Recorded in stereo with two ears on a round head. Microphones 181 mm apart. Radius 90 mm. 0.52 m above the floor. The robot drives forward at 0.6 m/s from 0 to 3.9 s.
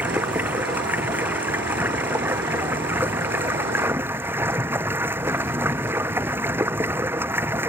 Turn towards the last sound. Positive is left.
turn(degrees=-10)  # may be behind; listen again after turning